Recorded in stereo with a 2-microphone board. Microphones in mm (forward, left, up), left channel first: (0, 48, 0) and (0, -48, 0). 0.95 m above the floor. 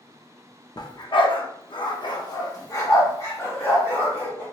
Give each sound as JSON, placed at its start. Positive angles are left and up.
{"t": 0.8, "sound": "a dog barking", "side_deg": 40, "distance_m": 0.6}